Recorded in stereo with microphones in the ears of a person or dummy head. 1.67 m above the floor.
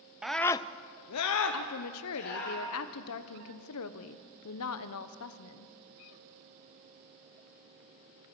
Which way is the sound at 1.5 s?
80° left.